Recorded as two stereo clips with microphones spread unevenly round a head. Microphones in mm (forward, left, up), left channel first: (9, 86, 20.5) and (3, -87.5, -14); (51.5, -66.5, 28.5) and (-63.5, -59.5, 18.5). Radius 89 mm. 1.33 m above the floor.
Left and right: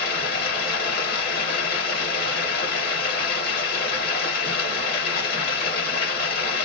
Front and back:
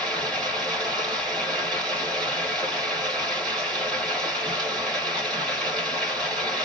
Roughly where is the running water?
Left.